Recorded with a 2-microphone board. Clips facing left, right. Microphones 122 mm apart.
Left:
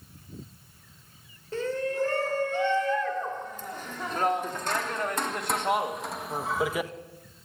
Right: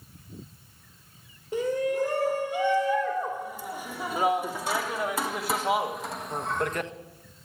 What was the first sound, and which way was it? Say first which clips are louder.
A shout: right 3 dB; 15° right (ahead or behind).